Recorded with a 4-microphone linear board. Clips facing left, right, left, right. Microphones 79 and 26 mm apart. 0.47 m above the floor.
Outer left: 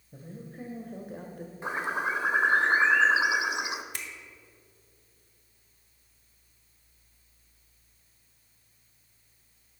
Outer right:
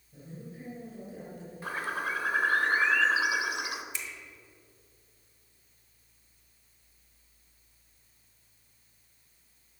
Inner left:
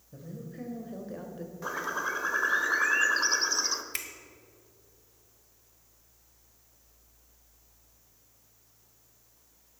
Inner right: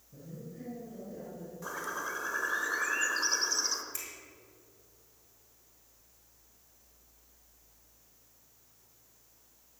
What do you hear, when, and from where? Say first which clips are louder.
0.1 s a woman speaking: outer left 2 dB, inner left 4 dB; 50° left (ahead or behind), 1.9 m; by 1.5 s 55° left (ahead or behind), 1.5 m
1.6 s a bird: outer left 3 dB, inner left 5 dB; 20° left (ahead or behind), 0.8 m
3.9 s a finger snap: even, inner left 6 dB; 60° left (ahead or behind), 1.3 m